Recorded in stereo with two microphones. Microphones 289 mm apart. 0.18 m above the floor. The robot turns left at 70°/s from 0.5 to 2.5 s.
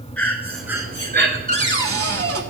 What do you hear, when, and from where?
0.2 s breathing: 5° left, 1.1 m; by 1.4 s 55° right, 1.1 m
1.5 s a cupboard door: 40° right, 0.9 m; by 2.4 s 105° right, 0.9 m